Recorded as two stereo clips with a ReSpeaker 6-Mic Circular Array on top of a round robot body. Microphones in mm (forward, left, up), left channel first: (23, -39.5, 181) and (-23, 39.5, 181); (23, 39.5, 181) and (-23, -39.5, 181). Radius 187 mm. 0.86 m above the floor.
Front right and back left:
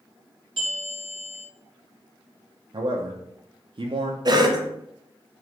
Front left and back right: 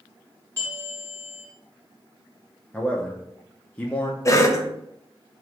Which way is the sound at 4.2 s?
100° left.